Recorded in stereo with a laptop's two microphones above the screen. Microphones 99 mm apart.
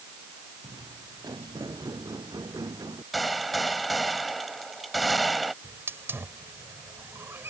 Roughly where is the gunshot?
Centre.